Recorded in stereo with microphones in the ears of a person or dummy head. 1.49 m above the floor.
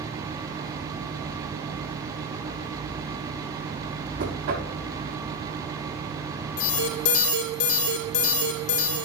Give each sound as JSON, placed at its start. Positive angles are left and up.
{"t": 4.2, "sound": "knocking", "side_deg": -85, "distance_m": 6.0}
{"t": 6.6, "sound": "an alarm", "side_deg": 70, "distance_m": 3.0}